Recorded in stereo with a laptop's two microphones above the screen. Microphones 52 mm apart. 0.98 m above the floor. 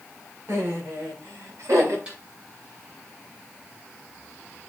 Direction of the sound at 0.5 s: 60° right (ahead or behind).